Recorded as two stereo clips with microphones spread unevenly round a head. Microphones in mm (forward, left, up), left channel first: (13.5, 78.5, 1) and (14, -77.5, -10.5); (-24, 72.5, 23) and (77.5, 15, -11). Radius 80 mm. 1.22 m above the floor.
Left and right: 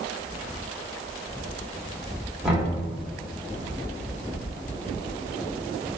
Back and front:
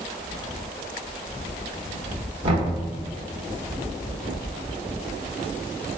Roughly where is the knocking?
Ahead.